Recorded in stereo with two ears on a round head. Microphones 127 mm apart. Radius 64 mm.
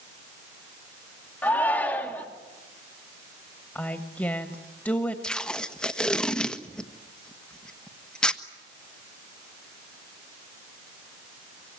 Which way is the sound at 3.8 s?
10° left (ahead or behind).